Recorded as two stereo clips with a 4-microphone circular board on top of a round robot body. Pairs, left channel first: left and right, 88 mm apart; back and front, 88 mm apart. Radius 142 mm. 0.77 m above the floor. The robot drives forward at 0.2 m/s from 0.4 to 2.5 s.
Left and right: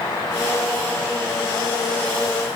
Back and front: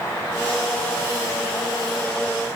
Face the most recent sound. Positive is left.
No sound to turn to.